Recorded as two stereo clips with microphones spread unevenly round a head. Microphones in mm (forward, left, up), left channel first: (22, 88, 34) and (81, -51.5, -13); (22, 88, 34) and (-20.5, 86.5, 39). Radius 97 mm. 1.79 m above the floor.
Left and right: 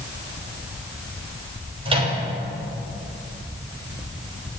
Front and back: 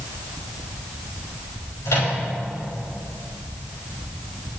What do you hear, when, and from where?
1.9 s a microwave: 10° right, 6 m